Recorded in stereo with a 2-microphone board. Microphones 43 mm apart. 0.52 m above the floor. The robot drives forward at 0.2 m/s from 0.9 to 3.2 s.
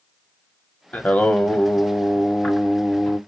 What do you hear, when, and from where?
0.9 s singing: 40° left (ahead or behind), 0.7 m; by 3.2 s 25° left (ahead or behind), 1.1 m